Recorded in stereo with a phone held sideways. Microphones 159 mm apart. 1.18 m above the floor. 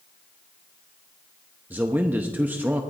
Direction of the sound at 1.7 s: 10° right (ahead or behind).